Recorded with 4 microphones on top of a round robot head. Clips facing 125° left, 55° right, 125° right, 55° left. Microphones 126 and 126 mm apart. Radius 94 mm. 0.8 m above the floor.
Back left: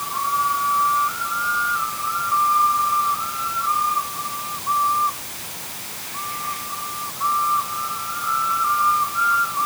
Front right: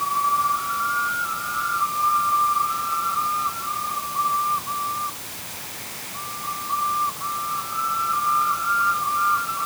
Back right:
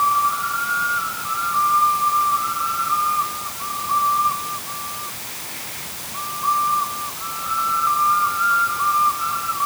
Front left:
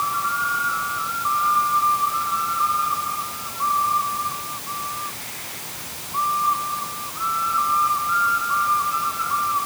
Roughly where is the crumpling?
No crumpling in this recording.